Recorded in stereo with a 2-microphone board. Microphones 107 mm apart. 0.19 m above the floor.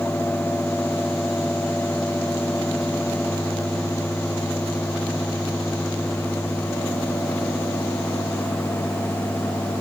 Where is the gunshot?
I don't hear a gunshot.